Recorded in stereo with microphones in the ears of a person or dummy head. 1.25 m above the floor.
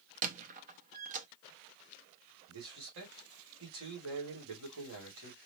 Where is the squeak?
40° right (ahead or behind), 0.9 m.